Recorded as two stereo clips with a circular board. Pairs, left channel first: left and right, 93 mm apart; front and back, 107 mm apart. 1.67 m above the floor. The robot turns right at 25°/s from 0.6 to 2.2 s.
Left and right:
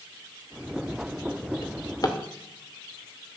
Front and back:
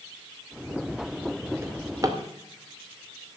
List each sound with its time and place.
1.6 s a drawer: 120° left, 2 m; by 2.2 s 135° left, 2 m